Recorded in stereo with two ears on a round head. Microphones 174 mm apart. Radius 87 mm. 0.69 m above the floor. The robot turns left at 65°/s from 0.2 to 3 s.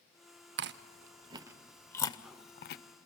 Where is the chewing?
65° right (ahead or behind), 0.6 m; by 2.8 s 65° left (ahead or behind), 0.6 m.